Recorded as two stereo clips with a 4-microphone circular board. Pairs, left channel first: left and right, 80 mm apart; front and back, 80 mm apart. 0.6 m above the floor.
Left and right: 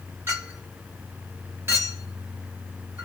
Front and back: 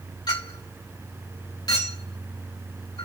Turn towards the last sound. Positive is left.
turn(degrees=-30)